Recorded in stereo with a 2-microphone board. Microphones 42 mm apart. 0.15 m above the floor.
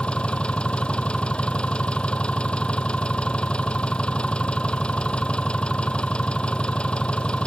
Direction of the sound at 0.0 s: 25° left (ahead or behind).